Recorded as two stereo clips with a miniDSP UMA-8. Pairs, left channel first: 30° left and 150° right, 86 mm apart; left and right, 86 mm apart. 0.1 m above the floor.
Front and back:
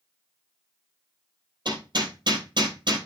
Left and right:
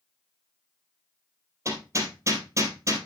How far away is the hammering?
About 3 m.